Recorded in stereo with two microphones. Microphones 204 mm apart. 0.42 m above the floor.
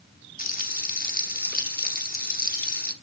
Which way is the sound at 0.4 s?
40° left (ahead or behind).